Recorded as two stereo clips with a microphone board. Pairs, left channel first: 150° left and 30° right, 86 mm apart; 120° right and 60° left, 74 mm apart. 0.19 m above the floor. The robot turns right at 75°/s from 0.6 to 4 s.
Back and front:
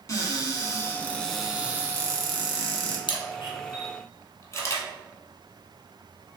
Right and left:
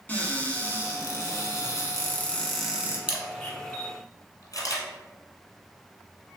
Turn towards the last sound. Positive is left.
turn(degrees=-160)